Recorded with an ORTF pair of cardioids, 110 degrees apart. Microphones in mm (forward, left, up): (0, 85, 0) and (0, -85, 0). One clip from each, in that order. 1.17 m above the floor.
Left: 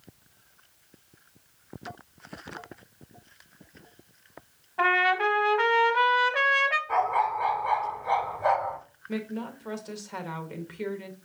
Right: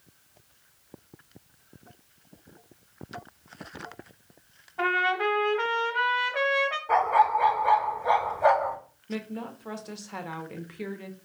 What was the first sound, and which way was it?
A trumpet, 15° left.